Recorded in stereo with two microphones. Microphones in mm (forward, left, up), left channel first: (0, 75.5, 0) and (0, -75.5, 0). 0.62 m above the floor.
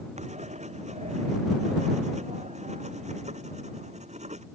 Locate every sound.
0.2 s writing: 50° right (ahead or behind)